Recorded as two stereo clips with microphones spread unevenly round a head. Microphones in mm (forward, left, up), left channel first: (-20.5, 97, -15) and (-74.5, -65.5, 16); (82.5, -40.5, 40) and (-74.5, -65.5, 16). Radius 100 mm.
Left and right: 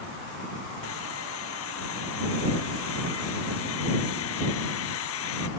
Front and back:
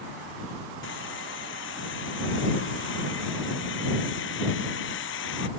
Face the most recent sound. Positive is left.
turn(degrees=45)